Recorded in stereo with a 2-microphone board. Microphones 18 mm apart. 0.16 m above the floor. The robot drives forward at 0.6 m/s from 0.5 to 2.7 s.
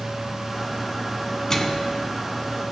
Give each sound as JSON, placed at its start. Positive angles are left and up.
{"t": 1.5, "sound": "a microwave", "side_deg": 25, "distance_m": 1.1}